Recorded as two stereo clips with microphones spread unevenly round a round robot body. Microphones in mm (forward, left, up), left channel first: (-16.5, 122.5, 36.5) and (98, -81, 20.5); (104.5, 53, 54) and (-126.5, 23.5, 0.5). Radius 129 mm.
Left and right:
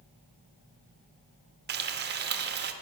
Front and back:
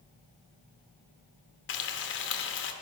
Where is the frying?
35° right, 0.7 m.